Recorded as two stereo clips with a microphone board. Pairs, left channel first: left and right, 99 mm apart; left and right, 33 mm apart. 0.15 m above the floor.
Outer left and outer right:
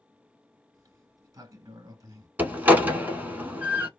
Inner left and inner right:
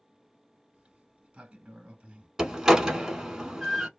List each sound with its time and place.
0.7 s a sliding door: 40° right (ahead or behind), 0.9 m
2.4 s a door slam: 15° right (ahead or behind), 1.0 m